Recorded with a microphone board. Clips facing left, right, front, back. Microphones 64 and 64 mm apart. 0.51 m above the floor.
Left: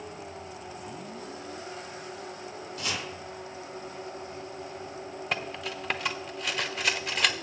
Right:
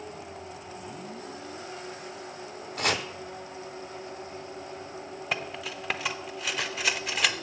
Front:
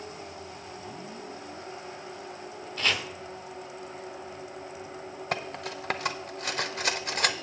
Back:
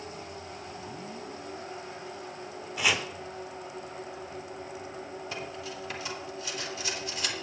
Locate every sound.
2.8 s chopping: 100° right, 0.7 m
5.3 s cutlery clinking: straight ahead, 0.6 m